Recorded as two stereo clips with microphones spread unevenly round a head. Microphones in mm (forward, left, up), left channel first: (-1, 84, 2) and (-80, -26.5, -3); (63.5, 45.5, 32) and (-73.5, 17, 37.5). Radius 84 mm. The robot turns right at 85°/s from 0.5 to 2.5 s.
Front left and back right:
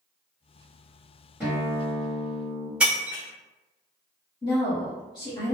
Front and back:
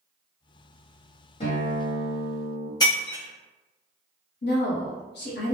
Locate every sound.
1.4 s a guitar: 45° right, 1.2 m; by 2.7 s 50° left, 1.2 m
2.8 s breaking glass: 45° right, 0.8 m
4.4 s a woman speaking: 10° right, 0.9 m